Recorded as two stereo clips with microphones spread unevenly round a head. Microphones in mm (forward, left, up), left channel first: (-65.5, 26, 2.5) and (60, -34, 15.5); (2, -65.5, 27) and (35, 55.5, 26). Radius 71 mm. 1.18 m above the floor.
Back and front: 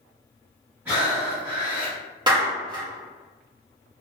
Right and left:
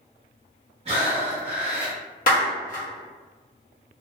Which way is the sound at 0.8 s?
45° left.